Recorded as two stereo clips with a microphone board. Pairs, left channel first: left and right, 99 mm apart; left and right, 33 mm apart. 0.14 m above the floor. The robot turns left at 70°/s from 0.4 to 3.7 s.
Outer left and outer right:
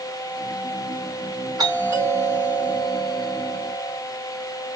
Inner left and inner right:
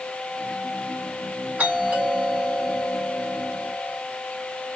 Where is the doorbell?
95° right, 2.5 m; by 4.0 s 115° left, 2.5 m.